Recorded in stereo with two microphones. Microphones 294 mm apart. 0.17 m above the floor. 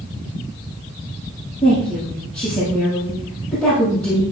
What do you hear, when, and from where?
1.6 s a woman speaking: 5° left (ahead or behind), 5.5 m